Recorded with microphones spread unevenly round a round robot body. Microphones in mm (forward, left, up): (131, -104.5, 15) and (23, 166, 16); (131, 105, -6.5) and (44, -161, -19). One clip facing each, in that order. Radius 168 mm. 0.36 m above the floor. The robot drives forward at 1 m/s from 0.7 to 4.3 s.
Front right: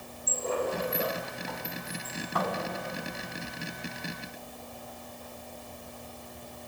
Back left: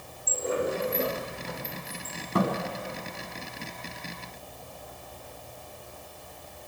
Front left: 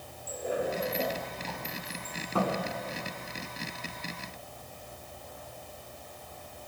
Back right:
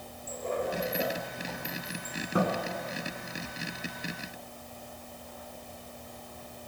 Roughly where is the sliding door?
Behind left.